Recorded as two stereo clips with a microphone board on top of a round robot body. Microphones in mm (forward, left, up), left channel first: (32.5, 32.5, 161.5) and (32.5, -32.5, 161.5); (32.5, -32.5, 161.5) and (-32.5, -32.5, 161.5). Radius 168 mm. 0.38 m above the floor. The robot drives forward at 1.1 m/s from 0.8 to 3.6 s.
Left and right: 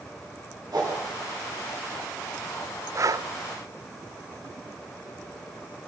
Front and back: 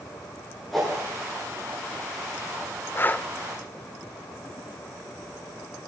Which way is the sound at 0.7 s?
85° right.